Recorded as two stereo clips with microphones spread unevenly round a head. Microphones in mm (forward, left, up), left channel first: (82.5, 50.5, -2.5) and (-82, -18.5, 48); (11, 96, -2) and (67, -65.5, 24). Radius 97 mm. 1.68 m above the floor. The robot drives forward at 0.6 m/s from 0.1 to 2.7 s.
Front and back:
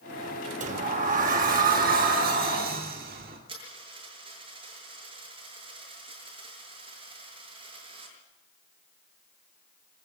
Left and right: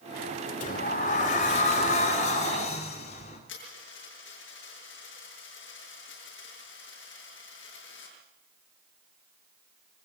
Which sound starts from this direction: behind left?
A dropped coin, at 3.5 s.